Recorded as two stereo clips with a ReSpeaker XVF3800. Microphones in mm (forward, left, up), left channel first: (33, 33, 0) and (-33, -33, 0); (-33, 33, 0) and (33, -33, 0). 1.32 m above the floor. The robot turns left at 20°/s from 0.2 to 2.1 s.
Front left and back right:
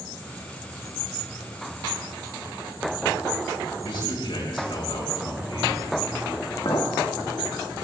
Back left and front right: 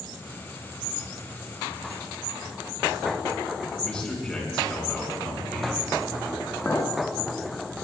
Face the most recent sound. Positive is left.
turn(degrees=70)